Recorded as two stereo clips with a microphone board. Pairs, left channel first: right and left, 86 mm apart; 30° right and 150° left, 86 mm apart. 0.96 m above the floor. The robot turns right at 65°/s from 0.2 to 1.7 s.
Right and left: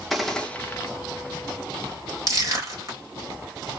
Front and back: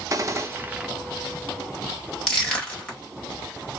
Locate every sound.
0.1 s a gunshot: straight behind, 0.8 m; by 0.9 s 135° right, 0.8 m
2.3 s crushing: 50° left, 1.7 m